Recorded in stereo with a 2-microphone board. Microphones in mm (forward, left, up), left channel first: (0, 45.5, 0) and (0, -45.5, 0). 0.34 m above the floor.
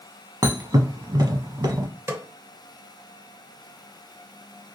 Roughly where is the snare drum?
Right.